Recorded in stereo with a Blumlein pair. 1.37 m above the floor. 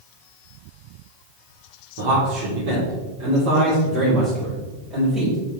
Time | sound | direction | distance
2.0 | a man speaking | 50° right | 3.5 m